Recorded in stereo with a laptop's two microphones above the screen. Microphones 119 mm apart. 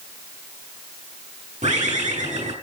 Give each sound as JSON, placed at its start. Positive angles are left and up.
{"t": 1.6, "sound": "a bird", "side_deg": -85, "distance_m": 5.5}